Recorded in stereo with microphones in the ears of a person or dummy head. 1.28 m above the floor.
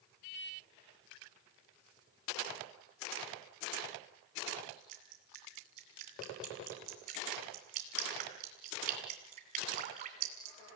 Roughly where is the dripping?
Right.